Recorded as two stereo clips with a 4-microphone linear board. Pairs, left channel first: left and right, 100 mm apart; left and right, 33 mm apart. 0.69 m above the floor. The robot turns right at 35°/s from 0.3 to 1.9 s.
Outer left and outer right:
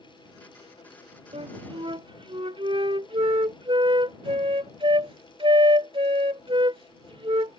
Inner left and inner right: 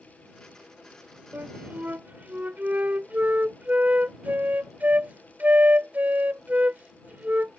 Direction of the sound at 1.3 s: 75° right (ahead or behind).